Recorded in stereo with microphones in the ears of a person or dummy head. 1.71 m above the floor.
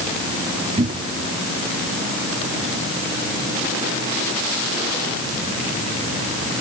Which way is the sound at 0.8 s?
30° right (ahead or behind).